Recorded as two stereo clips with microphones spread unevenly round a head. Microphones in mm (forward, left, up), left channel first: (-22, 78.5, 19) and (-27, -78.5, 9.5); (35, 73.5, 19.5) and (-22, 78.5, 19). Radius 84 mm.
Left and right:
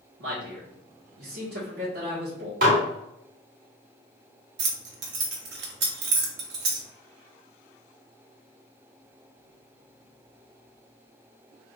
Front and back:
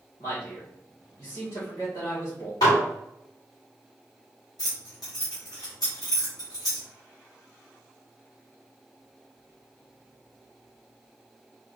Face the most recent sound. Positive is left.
turn(degrees=-60)